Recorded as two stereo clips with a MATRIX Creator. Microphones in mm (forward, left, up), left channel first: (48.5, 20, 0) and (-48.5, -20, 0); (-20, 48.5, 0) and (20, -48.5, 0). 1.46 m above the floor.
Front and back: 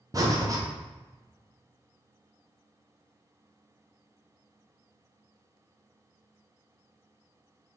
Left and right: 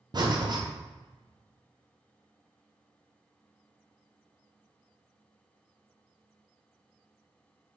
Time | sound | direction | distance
0.1 | breathing | 105° right | 0.7 m